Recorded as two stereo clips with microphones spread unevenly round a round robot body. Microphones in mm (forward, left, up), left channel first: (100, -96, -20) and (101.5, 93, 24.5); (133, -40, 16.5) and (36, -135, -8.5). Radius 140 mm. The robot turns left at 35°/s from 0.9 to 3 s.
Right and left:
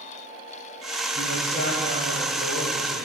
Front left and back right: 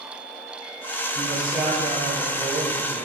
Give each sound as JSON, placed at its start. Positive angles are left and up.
{"t": 1.1, "sound": "a man speaking", "azimuth_deg": -40, "distance_m": 4.5}